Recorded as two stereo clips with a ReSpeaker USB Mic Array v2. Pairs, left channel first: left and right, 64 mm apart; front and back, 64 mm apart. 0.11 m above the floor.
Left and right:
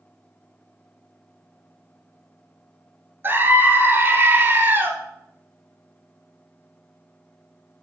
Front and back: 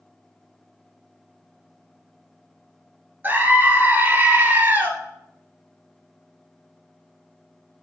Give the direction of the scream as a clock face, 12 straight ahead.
4 o'clock.